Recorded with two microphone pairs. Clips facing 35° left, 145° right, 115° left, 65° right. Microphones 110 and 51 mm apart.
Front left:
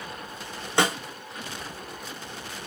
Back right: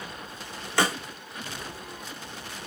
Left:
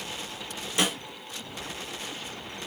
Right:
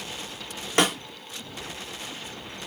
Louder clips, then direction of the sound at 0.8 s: Front left 2 dB, right 5 dB; 35° right.